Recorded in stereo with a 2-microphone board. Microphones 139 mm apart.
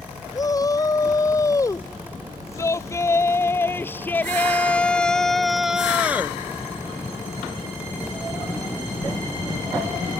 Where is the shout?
25° left (ahead or behind); by 6.4 s 15° right (ahead or behind).